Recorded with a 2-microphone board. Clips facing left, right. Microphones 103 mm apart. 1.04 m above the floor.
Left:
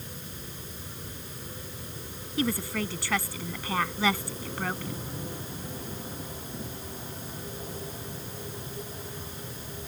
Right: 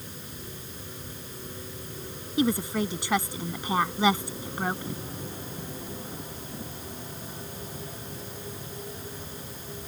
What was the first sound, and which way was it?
A woman speaking, 20° right (ahead or behind).